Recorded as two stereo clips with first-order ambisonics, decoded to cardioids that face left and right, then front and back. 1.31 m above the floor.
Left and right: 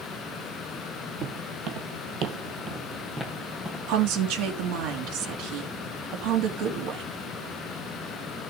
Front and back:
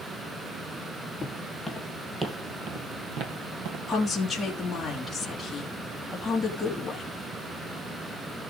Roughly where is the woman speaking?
Right.